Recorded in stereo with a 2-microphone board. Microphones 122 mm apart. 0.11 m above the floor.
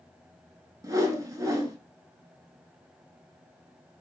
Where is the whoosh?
30° right (ahead or behind), 0.9 m.